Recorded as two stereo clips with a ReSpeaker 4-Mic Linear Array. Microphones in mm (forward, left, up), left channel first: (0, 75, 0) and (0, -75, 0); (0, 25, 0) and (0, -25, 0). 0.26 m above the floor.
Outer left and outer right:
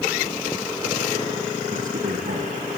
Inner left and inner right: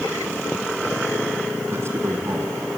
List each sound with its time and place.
1.7 s a man speaking: 60° right (ahead or behind), 3 m